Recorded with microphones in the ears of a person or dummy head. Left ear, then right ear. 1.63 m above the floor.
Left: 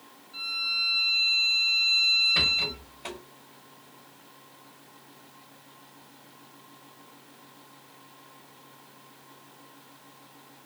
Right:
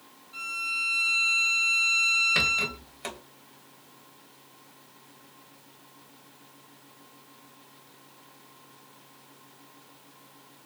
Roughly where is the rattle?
Right.